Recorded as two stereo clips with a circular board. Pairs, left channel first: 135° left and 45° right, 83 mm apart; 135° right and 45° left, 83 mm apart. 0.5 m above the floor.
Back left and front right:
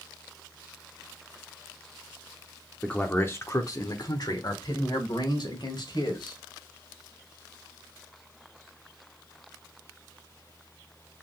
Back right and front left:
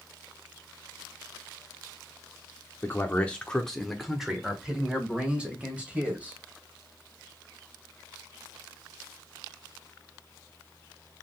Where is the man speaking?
160° right, 0.7 m; by 6.4 s 115° left, 2.5 m.